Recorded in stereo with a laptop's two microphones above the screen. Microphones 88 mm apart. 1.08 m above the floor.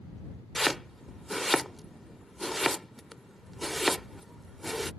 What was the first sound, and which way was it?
Chopping, centre (ahead or behind).